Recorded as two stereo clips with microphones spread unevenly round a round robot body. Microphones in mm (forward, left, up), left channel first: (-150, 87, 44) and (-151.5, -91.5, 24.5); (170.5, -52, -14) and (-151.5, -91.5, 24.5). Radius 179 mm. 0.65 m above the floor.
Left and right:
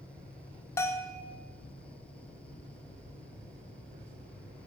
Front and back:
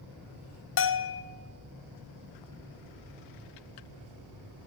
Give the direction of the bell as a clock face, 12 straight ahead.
12 o'clock.